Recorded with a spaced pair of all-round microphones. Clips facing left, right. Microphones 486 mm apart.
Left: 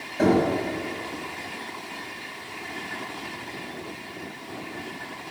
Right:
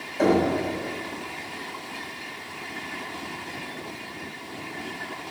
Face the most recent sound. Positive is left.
turn(degrees=40)  # may be behind; listen again after turning